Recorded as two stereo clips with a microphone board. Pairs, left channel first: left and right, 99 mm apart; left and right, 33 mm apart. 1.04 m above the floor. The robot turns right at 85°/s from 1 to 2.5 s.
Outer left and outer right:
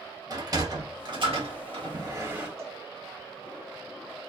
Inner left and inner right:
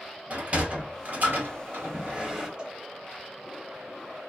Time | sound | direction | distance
0.3 | a sliding door | 45° right (ahead or behind) | 1.3 m
2.6 | a cowbell | 30° right (ahead or behind) | 1.2 m